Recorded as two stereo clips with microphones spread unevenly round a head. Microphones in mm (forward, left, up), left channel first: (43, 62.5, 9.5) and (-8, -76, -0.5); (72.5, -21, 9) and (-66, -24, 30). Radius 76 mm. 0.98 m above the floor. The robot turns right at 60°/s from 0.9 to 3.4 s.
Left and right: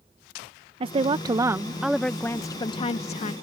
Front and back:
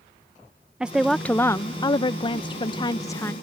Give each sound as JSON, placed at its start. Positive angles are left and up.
{"t": 0.8, "sound": "a woman speaking", "azimuth_deg": -85}